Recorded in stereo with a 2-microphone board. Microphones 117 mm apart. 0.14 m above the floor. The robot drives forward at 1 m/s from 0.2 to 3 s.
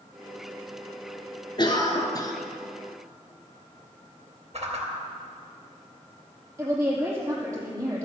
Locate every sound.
1.6 s a cough: 35° left (ahead or behind), 1.7 m; by 2.3 s 30° left (ahead or behind), 2 m
4.5 s a whoosh: 60° right (ahead or behind), 2.5 m
6.6 s a woman speaking: 20° right (ahead or behind), 5.5 m